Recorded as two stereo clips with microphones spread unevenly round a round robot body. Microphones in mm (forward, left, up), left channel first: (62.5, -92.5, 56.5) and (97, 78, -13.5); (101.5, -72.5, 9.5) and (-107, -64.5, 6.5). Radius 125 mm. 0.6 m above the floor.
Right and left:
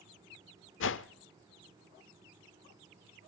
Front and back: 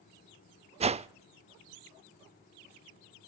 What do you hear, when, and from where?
0.8 s a whoosh: 120° right, 0.5 m